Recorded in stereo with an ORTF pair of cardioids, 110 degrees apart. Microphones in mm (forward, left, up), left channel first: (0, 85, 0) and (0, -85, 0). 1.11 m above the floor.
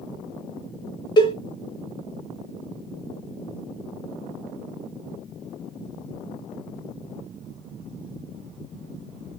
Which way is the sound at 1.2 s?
30° left.